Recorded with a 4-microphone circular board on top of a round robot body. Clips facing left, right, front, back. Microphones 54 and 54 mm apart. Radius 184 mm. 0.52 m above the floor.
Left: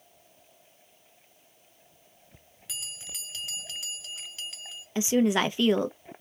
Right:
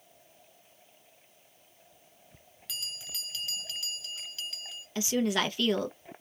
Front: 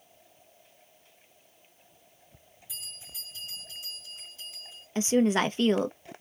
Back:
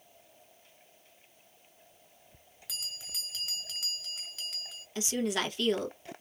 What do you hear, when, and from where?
2.7 s a bell: 160° left, 0.7 m
5.0 s a woman speaking: 30° left, 0.8 m